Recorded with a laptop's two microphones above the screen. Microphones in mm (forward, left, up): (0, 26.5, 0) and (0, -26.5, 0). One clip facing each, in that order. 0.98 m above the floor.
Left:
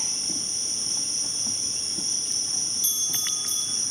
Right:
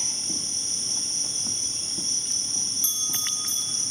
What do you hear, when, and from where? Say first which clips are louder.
0.0 s an insect: even; 45° left (ahead or behind), 1.5 m
2.8 s a bell: left 1 dB; 30° right (ahead or behind), 0.6 m